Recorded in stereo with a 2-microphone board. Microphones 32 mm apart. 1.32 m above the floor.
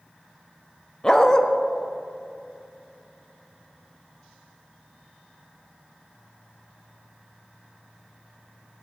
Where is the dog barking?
15° left (ahead or behind), 0.7 m.